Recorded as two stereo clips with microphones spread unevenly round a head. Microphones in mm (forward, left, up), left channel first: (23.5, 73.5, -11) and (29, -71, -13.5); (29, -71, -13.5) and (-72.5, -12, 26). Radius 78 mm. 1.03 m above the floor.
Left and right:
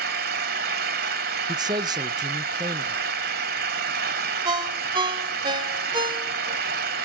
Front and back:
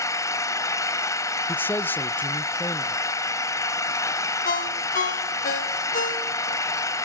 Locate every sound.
0.0 s an engine running: 100° right, 1.7 m
1.5 s a man speaking: 50° right, 0.7 m
4.5 s a ringtone: 30° right, 1.9 m